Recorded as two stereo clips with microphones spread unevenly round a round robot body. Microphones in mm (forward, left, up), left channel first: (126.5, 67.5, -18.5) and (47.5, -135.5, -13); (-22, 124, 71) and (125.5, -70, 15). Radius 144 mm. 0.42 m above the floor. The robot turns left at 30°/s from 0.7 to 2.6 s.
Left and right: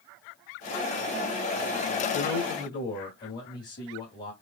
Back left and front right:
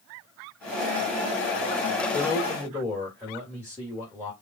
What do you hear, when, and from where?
2.1 s a man speaking: 50° left, 2 m; by 4.3 s 35° left, 2 m